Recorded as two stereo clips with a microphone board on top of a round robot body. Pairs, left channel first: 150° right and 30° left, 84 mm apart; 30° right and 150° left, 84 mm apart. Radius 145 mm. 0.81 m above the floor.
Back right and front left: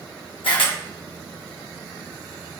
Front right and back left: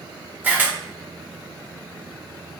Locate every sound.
0.4 s a camera shutter: 140° right, 1.0 m